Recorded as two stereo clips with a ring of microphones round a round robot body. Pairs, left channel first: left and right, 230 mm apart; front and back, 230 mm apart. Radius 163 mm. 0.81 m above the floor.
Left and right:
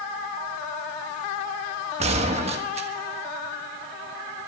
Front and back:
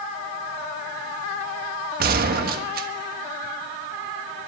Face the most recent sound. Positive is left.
turn(degrees=-145)